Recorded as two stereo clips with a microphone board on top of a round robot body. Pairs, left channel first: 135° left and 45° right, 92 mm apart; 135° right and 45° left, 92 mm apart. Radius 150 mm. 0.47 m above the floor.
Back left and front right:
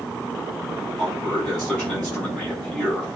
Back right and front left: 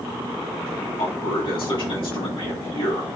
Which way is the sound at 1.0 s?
145° right.